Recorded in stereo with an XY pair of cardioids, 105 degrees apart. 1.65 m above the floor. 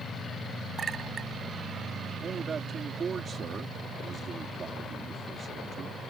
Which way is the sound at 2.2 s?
45° right.